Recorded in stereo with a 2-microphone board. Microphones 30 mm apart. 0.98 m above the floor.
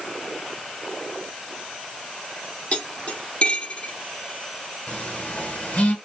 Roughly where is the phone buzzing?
Left.